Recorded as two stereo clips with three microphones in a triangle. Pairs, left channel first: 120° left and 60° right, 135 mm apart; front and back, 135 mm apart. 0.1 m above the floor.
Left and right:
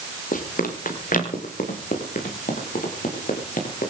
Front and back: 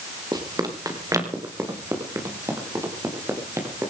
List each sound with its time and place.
0.3 s running footsteps: 120° left, 4 m; by 3.9 s 110° left, 8.5 m